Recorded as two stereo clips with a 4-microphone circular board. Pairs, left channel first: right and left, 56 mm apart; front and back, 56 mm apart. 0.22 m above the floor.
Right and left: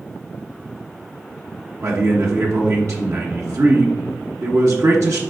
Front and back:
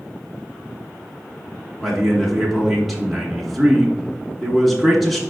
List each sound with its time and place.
1.8 s a man speaking: 90° left, 2 m